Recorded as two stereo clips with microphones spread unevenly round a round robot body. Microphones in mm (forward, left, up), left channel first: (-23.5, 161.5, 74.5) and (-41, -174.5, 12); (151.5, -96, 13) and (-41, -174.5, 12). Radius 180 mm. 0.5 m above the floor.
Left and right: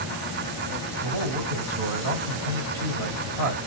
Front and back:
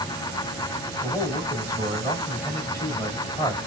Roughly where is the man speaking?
Ahead right.